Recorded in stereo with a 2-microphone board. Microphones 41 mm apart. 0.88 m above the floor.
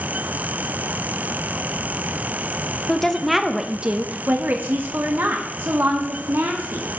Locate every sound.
2.9 s a woman speaking: 15° left (ahead or behind), 0.9 m; by 6.9 s 70° right (ahead or behind), 2.5 m